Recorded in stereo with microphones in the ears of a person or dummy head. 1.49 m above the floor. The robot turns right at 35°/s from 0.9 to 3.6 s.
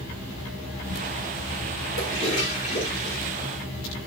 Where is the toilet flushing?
115° left, 7 m; by 3.1 s 155° left, 7 m.